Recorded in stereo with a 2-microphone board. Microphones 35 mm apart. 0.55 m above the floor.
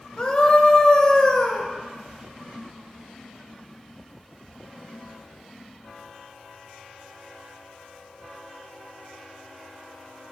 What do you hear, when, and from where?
0.2 s a scream: 25° left (ahead or behind), 2 m